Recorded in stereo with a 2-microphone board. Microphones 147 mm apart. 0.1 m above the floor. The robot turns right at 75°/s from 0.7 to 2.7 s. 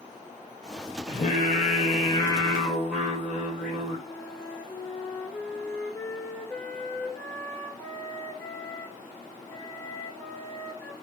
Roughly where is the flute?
Centre.